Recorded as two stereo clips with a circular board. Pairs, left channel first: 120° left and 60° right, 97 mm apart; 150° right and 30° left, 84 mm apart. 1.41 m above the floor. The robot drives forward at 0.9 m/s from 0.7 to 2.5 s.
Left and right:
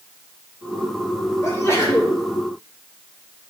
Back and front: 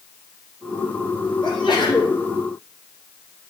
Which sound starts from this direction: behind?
A sneeze, at 1.4 s.